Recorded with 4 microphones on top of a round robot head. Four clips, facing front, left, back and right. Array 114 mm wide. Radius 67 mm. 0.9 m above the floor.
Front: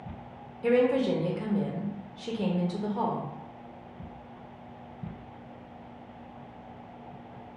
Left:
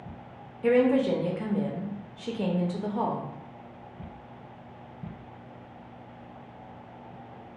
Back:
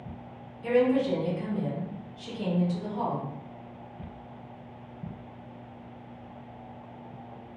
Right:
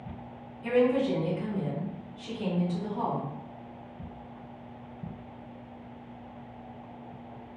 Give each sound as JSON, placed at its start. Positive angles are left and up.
{"t": 0.6, "sound": "a woman speaking", "azimuth_deg": 65, "distance_m": 0.7}